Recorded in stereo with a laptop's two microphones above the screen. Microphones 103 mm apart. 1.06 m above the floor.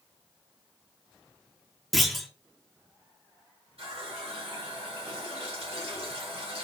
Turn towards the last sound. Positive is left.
turn(degrees=-85)